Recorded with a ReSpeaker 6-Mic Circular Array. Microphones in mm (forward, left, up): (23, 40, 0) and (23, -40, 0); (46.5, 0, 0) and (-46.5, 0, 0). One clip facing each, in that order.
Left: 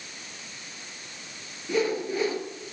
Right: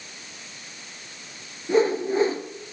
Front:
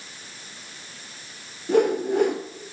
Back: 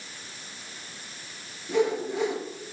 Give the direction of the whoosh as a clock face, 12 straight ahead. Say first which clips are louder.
Right 6 dB, front 5 dB; 1 o'clock.